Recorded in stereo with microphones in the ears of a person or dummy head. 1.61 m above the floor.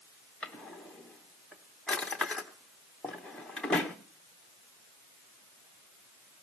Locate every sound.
0.4 s a drawer: 5° left (ahead or behind), 0.9 m